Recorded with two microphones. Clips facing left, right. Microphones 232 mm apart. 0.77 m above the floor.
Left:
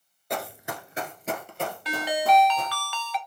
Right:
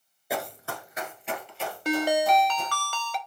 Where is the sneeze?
I don't hear a sneeze.